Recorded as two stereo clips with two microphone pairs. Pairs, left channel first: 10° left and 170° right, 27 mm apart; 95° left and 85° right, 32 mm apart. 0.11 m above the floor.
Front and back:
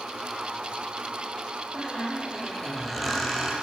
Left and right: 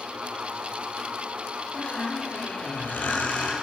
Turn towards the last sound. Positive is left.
turn(degrees=90)